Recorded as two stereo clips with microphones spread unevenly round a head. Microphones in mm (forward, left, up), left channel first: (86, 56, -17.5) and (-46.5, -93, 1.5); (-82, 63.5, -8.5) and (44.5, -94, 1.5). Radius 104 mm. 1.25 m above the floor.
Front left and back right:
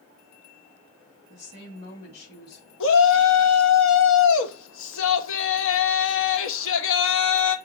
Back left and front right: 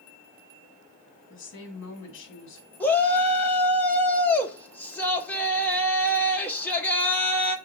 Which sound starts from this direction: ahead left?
A shout, at 2.8 s.